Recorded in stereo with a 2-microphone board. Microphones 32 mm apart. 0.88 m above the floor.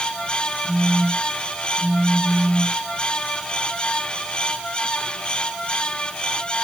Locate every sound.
0.6 s a phone buzzing: 25° right (ahead or behind), 3.5 m